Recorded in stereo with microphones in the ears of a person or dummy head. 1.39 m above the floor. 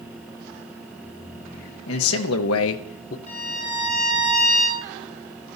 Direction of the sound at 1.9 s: 70° left (ahead or behind).